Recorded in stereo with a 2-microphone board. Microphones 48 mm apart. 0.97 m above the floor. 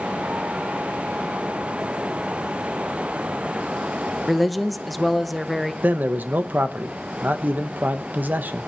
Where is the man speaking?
40° right (ahead or behind), 0.8 m.